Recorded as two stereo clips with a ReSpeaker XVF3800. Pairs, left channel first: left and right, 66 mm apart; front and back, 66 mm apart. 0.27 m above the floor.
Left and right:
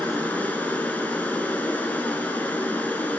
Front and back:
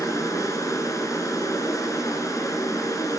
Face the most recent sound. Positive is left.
turn(degrees=25)